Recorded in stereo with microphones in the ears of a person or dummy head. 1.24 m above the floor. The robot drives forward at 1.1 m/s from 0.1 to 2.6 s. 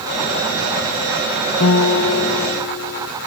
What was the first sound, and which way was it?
A guitar, 75° left (ahead or behind).